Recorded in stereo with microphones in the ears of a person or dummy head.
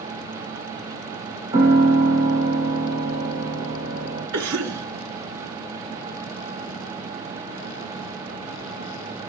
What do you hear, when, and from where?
1.5 s a piano: 20° right (ahead or behind), 2.5 m
4.3 s a cough: 60° right (ahead or behind), 1.1 m